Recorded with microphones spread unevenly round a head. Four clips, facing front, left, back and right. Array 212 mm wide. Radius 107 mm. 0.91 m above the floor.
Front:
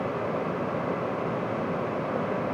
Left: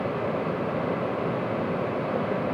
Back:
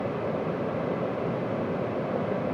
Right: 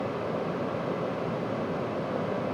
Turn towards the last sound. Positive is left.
No sound to turn to.